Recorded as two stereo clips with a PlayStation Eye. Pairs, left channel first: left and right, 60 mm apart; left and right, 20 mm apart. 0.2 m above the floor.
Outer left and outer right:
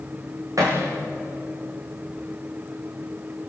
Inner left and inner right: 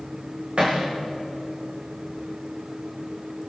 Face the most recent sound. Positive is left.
turn(degrees=-65)  # may be behind; listen again after turning